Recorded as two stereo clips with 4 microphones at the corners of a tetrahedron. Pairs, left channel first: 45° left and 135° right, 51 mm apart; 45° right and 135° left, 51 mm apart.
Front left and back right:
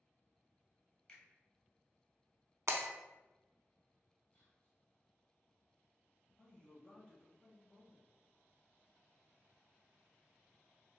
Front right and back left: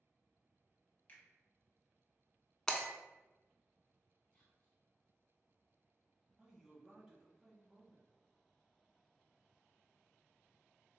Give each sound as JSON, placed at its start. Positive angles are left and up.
{"t": 1.1, "sound": "a finger snap", "azimuth_deg": -15, "distance_m": 0.9}
{"t": 2.7, "sound": "breaking glass", "azimuth_deg": -120, "distance_m": 0.5}
{"t": 4.3, "sound": "whispering", "azimuth_deg": 30, "distance_m": 1.8}
{"t": 6.4, "sound": "a man speaking", "azimuth_deg": 70, "distance_m": 1.0}